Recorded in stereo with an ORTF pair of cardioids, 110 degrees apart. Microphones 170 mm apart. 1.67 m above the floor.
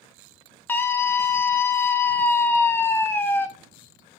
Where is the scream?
15° left, 0.7 m.